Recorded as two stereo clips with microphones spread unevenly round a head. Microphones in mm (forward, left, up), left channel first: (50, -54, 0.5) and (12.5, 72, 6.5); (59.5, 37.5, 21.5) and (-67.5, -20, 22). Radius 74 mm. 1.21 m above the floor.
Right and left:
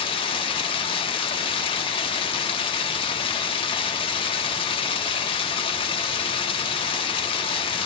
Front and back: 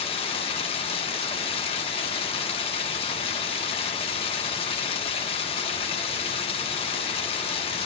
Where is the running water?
25° right, 1.0 m.